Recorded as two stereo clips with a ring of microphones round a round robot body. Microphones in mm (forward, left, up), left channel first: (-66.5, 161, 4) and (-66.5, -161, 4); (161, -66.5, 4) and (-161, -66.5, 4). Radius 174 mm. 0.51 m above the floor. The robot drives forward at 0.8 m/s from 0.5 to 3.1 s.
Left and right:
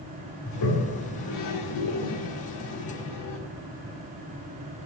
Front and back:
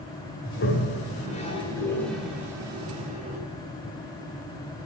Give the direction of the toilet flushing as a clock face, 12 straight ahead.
10 o'clock.